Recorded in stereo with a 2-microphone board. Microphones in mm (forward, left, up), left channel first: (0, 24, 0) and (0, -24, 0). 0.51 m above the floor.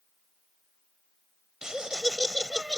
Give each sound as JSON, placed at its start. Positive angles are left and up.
{"t": 1.6, "sound": "laughter", "side_deg": -15}